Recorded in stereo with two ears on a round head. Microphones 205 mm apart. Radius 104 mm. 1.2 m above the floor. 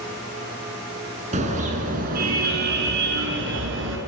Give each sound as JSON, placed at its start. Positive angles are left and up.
{"t": 1.3, "sound": "a car horn", "side_deg": -30, "distance_m": 5.5}